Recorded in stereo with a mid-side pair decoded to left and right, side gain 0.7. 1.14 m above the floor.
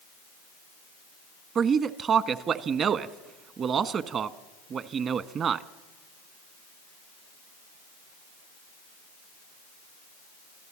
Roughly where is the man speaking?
Ahead right.